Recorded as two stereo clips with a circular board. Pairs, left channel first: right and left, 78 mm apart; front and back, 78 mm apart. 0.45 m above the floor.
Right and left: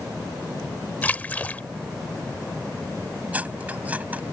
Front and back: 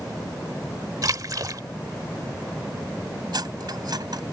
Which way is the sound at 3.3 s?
160° left.